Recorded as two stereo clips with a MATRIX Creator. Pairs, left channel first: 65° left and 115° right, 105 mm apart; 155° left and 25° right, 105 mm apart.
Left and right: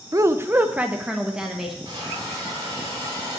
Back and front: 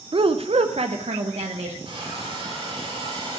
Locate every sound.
0.1 s a woman speaking: 55° right, 0.5 m; by 1.8 s 25° right, 1.3 m
1.9 s a hiss: 60° right, 6 m